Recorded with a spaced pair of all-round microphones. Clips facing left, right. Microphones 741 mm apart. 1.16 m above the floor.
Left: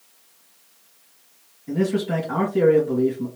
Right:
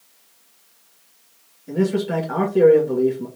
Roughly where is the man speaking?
Centre.